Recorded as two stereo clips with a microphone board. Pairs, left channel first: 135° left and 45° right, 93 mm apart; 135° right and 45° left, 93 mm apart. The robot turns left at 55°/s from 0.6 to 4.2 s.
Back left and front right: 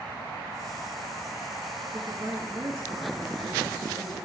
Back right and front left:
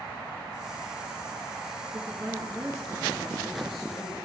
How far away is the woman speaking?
About 2.5 m.